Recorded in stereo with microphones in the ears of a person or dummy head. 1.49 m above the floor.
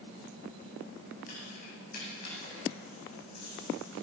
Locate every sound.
1.3 s keys jangling: 45° left (ahead or behind), 8 m; by 4.0 s 60° left (ahead or behind), 7.5 m